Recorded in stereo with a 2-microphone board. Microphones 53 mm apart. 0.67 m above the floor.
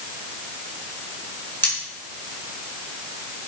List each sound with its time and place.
1.6 s cutlery clinking: 40° left (ahead or behind), 5 m